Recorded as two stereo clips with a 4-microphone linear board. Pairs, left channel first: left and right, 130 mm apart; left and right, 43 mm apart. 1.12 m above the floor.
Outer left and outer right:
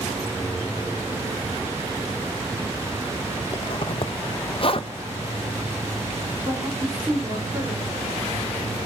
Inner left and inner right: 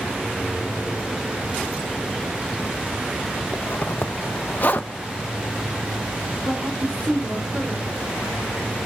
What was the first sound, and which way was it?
A zipper, 50° left (ahead or behind).